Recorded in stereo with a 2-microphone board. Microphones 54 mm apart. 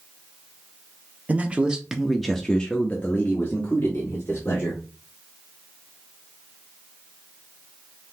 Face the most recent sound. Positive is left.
turn(degrees=40)  # may be behind; listen again after turning